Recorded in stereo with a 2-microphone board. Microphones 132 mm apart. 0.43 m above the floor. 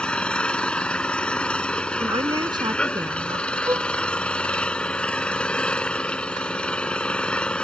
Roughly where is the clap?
I don't hear a clap.